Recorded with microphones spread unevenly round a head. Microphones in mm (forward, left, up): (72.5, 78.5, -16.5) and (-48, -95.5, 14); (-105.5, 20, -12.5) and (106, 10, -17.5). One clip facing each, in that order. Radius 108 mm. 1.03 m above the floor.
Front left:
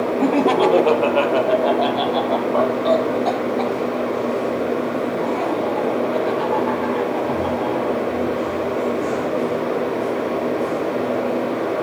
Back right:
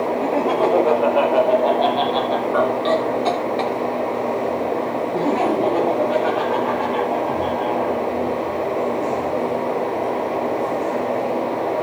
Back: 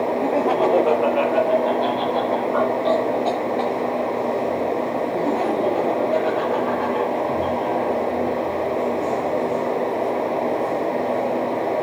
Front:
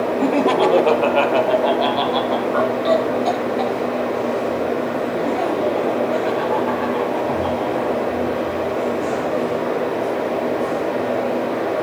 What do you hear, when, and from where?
0.2 s laughter: 35° left, 1.4 m; by 8.0 s 100° right, 4 m